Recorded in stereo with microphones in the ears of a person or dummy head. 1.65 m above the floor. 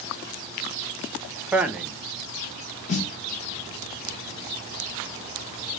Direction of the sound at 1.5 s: 5° right (ahead or behind).